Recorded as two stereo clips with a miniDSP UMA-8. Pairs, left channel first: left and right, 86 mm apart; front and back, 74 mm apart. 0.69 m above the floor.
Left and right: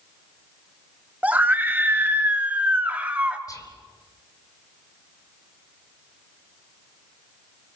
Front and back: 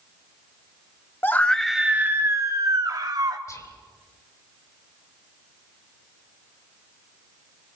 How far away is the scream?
About 0.7 m.